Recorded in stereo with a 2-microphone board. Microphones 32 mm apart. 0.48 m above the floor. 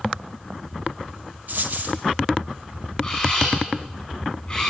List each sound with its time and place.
1.5 s a dropped coin: 60° right (ahead or behind), 2.5 m
3.0 s a camera shutter: 15° left (ahead or behind), 8.5 m